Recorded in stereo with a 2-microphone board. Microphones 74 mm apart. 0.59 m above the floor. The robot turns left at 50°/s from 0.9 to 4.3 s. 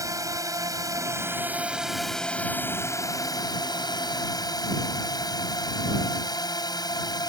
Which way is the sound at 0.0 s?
50° right (ahead or behind).